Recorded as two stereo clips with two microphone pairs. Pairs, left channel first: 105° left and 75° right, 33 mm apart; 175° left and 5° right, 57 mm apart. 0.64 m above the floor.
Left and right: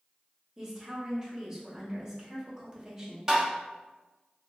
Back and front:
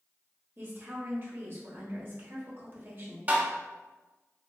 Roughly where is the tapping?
Ahead.